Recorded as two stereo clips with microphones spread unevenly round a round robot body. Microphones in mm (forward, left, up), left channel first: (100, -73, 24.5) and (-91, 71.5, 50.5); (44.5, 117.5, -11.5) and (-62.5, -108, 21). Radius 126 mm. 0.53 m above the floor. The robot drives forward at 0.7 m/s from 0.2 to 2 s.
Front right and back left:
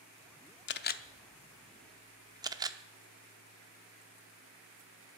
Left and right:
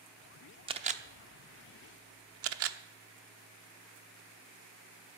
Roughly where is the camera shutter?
Ahead right.